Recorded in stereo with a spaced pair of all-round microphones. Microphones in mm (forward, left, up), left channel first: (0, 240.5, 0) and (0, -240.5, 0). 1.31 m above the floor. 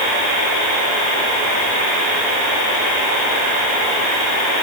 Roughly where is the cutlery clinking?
No cutlery clinking in this recording.